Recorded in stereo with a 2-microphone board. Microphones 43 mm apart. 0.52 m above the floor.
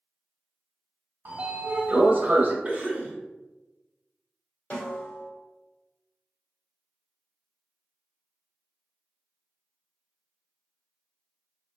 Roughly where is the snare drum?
Left.